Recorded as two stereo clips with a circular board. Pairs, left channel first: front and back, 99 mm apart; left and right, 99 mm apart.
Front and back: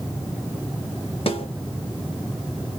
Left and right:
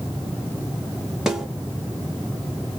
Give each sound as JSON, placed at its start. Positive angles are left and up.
{"t": 1.3, "sound": "a snare drum", "azimuth_deg": -5, "distance_m": 1.2}